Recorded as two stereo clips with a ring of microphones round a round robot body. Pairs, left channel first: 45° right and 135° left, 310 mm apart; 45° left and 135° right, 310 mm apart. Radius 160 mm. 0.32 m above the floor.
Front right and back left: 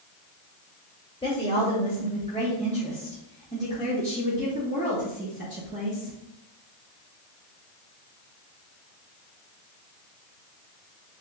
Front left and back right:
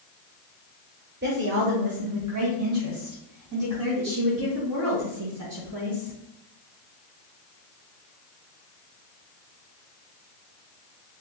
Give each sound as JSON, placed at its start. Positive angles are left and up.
{"t": 1.2, "sound": "a woman speaking", "azimuth_deg": -105, "distance_m": 1.3}